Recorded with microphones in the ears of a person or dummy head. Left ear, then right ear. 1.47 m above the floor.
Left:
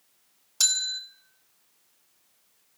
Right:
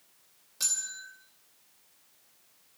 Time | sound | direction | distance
0.6 | a bell | 55° left (ahead or behind) | 2.5 m